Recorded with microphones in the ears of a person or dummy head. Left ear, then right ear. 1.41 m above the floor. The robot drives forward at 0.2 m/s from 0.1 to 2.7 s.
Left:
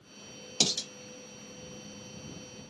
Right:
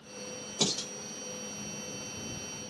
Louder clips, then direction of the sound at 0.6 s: Left 3 dB; 65° left (ahead or behind).